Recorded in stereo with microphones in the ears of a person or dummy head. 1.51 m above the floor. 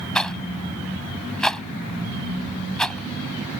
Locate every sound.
0.1 s a rattle: 10° left (ahead or behind)